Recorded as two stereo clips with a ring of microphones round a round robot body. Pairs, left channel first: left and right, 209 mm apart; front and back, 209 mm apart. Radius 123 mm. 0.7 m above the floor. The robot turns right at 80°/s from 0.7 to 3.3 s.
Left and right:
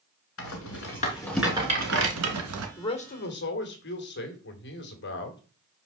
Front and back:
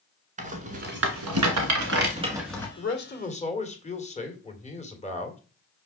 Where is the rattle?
125° left, 1.6 m; by 2.7 s 80° right, 1.6 m.